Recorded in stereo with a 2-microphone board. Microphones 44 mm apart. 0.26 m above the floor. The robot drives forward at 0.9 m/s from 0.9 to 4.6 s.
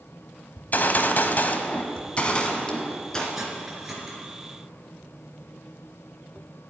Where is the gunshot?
45° left (ahead or behind), 0.9 m; by 3.2 s 15° left (ahead or behind), 2 m.